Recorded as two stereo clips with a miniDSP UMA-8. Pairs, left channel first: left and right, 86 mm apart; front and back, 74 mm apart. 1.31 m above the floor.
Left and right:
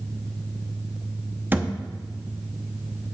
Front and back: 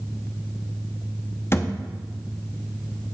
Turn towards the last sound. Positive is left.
turn(degrees=-35)